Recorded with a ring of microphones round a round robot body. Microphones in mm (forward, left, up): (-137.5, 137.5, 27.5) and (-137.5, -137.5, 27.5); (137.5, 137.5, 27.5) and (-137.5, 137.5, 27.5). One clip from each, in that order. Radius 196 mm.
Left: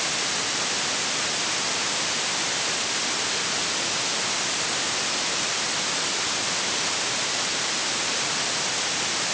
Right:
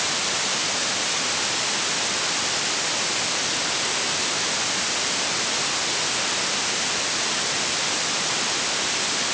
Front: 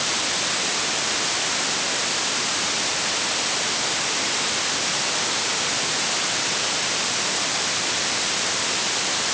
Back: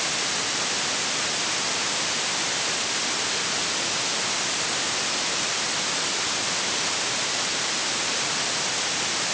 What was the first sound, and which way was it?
Only background noise.